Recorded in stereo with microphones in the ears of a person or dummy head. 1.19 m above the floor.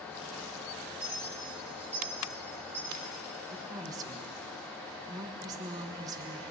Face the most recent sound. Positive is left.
turn(degrees=-20)  # may be behind; listen again after turning